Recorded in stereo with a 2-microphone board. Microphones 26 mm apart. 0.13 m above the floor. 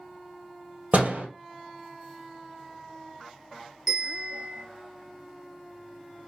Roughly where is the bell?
Centre.